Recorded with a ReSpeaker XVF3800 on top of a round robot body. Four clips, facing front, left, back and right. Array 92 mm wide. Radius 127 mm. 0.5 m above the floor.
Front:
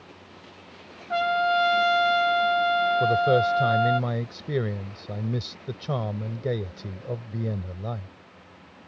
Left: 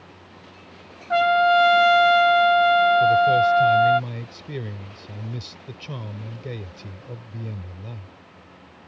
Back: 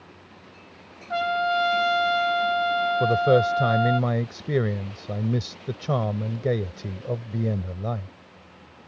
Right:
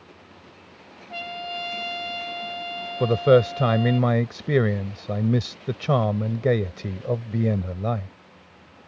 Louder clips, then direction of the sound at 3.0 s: Left 1 dB, back 4 dB; 100° right.